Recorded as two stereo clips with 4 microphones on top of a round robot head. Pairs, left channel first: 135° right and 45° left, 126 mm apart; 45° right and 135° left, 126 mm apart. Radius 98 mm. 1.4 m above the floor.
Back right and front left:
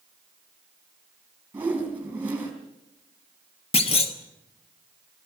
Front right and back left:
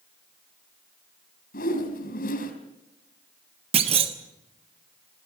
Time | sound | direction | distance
1.5 | a whoosh | 35° right | 4 m
3.7 | a clunk | straight behind | 1.2 m